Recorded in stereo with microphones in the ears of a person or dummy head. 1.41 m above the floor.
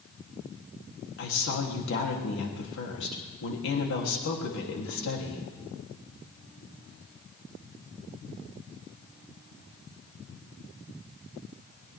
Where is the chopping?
I don't hear chopping.